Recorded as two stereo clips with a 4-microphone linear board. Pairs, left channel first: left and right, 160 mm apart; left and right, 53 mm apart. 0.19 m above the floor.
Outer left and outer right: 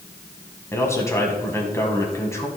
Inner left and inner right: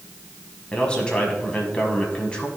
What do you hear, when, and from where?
0.7 s a man speaking: 20° left (ahead or behind), 1.6 m